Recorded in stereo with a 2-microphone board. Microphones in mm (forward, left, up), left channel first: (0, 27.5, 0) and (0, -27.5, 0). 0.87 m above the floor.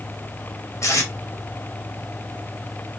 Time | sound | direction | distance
0.8 | tape being pulled | 70° left (ahead or behind) | 2.0 m